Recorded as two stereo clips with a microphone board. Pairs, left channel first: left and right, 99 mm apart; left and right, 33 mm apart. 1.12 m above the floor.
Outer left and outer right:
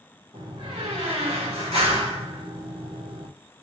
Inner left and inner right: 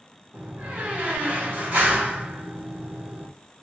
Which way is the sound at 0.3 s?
85° right.